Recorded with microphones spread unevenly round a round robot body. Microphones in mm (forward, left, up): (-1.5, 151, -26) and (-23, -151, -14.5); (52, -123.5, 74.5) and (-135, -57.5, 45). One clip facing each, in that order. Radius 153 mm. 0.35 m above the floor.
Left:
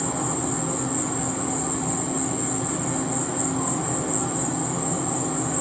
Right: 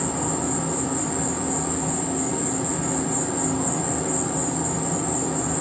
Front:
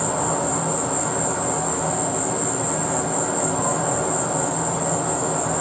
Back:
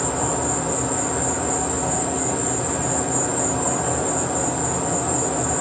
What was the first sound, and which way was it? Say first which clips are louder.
An insect: right 1 dB, even; 170° left.